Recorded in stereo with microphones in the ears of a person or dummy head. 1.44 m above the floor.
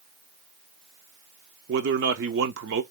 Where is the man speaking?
60° right (ahead or behind), 0.6 m.